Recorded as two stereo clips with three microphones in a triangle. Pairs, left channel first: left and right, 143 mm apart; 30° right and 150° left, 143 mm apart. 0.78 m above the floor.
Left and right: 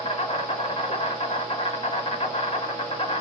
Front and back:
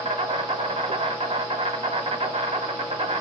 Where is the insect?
120° left, 0.9 m.